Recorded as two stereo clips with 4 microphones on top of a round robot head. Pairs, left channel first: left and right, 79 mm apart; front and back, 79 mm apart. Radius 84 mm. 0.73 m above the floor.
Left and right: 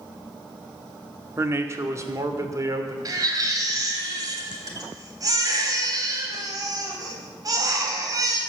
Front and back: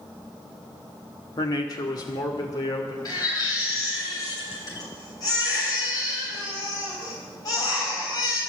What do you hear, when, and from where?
1.4 s a man speaking: 35° right, 1.9 m; by 3.0 s 45° right, 2.5 m
3.0 s a baby crying: 45° right, 3 m